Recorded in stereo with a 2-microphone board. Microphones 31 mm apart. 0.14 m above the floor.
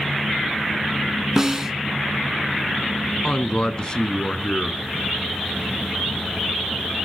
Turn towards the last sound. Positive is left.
turn(degrees=25)  # may be behind; listen again after turning